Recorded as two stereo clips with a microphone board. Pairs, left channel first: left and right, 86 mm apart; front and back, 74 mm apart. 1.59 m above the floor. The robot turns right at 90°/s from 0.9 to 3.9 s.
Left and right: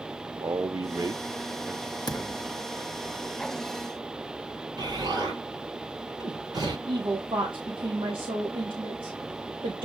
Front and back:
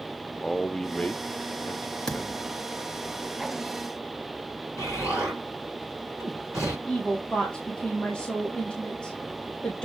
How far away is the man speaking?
About 0.6 m.